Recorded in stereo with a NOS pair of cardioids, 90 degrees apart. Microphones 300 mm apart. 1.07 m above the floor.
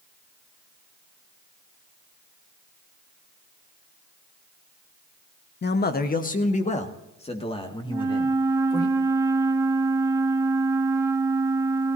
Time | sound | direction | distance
5.6 | a man speaking | 35° left | 1.1 m
7.9 | a flute | 10° right | 1.6 m